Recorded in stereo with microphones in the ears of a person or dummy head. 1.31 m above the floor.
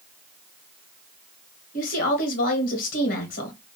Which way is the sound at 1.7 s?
45° left (ahead or behind).